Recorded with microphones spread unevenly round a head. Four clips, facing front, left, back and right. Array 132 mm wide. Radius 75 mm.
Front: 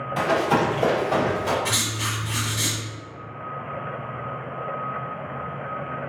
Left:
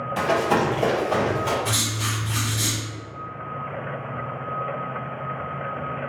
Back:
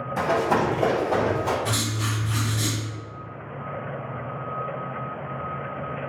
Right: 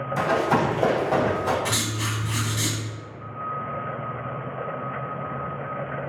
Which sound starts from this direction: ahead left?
Running footsteps, at 0.2 s.